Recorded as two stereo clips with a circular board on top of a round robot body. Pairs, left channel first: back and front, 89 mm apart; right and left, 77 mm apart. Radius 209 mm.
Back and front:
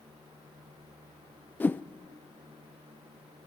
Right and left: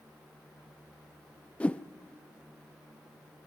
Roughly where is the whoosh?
Behind right.